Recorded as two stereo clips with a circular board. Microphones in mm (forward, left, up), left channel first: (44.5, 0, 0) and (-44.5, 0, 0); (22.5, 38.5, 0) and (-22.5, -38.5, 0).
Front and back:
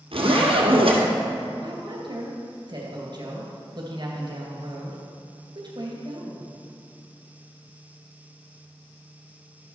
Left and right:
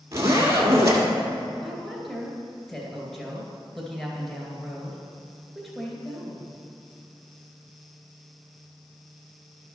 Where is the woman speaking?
150° left, 2 m.